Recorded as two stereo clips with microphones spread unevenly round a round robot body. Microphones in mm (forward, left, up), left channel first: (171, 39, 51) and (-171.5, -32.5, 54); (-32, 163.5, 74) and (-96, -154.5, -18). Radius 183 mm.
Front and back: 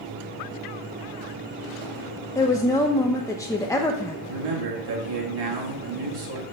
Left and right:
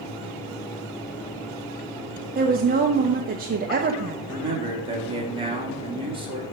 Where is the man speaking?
170° right, 2 m.